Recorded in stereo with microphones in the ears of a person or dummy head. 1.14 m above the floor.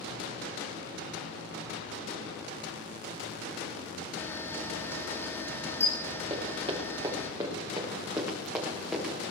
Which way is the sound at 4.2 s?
20° left (ahead or behind).